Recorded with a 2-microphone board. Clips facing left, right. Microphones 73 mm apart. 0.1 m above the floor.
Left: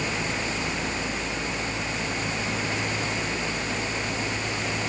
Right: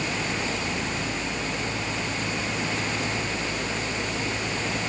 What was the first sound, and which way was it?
Only background noise.